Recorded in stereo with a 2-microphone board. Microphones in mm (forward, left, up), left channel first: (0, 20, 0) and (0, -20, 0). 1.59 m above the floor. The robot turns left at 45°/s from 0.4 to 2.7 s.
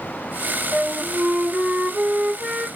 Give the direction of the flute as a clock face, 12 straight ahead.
1 o'clock.